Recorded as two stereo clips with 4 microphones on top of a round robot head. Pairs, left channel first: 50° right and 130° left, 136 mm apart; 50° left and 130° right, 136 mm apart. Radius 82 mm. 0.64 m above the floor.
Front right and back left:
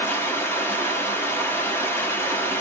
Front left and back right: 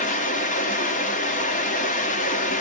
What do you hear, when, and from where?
0.0 s running water: 25° left, 0.9 m